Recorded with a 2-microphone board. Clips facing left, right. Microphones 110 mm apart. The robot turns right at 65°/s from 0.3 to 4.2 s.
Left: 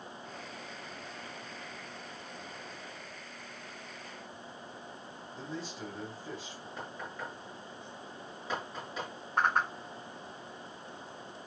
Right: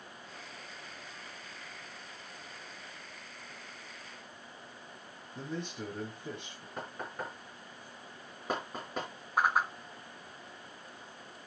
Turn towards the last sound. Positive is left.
turn(degrees=-10)  # may be behind; listen again after turning